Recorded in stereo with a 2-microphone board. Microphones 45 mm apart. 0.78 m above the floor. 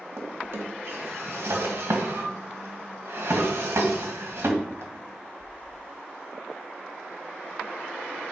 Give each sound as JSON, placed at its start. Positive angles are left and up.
{"t": 0.2, "sound": "a drawer", "side_deg": -80, "distance_m": 1.9}